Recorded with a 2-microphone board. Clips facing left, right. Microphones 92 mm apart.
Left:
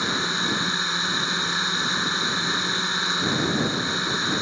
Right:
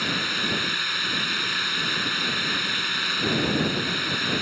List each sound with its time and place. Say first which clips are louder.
0.0 s a drone: left 2 dB; 20° left (ahead or behind)